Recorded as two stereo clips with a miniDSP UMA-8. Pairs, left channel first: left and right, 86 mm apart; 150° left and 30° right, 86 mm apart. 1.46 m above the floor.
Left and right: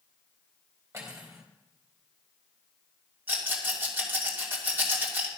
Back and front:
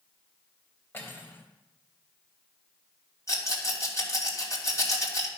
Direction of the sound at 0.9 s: 150° right.